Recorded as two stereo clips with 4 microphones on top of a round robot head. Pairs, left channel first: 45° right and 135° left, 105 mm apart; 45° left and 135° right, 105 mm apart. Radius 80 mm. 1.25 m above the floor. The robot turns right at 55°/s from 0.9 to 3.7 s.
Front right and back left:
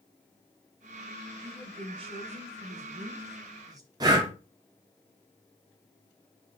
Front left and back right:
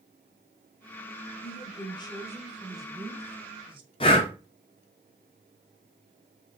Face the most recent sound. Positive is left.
turn(degrees=80)